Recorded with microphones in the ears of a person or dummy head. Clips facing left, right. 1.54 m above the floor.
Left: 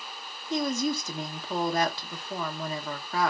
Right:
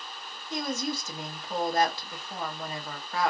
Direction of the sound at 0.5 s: 75° left (ahead or behind).